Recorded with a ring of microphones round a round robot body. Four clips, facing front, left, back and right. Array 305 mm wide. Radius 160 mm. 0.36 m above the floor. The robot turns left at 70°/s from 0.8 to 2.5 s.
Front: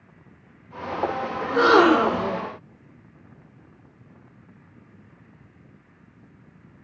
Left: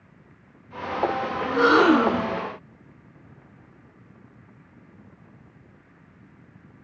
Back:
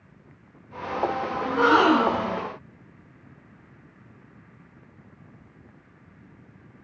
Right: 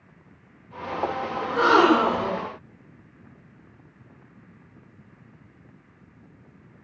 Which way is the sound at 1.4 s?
15° left.